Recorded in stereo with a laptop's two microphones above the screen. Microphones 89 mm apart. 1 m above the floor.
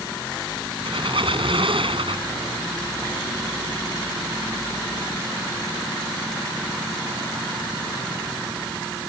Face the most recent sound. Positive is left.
turn(degrees=-75)  # may be behind; listen again after turning